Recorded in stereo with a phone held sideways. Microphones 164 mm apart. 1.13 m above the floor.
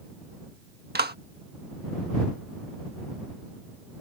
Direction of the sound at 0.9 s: 80° right.